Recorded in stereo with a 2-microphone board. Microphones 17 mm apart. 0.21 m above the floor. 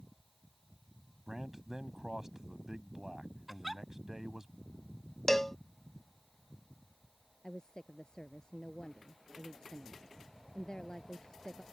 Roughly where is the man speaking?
Right.